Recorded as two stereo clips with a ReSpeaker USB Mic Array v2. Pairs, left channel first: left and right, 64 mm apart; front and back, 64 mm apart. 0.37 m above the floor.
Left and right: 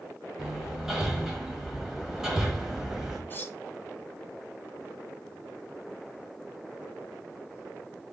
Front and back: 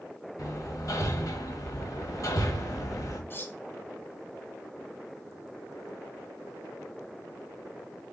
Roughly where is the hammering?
Ahead.